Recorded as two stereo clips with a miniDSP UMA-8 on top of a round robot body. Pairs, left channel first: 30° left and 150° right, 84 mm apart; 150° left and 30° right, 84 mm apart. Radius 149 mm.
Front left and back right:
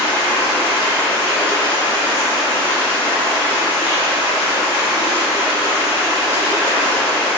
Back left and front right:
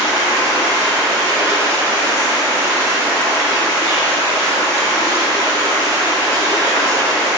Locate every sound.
0.0 s running water: 30° left, 1.1 m